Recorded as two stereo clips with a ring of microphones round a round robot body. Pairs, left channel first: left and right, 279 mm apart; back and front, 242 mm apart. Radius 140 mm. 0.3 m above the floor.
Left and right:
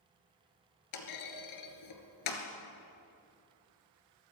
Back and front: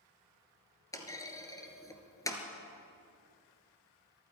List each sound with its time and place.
0.9 s a clunk: 105° left, 2 m